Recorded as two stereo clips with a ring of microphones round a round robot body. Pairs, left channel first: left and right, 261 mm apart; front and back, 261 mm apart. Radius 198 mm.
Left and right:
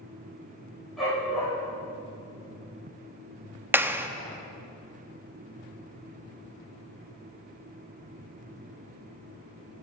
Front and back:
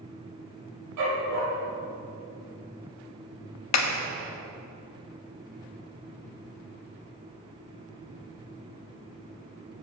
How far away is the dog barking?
About 8 m.